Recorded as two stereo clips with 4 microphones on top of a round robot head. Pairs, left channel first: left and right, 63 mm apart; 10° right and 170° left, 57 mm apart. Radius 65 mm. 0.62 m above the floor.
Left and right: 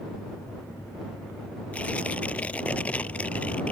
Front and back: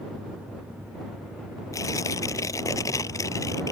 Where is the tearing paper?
20° left.